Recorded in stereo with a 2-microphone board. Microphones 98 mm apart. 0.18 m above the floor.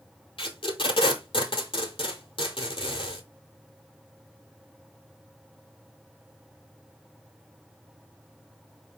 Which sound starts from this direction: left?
Tape being pulled, at 0.4 s.